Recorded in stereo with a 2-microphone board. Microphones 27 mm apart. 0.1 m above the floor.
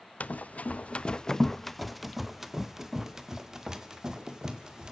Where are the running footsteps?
80° left, 0.6 m; by 4.9 s 25° right (ahead or behind), 2.5 m.